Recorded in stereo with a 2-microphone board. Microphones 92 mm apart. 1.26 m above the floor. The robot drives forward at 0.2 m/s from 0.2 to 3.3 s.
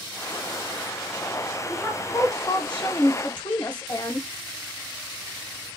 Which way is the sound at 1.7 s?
30° left (ahead or behind).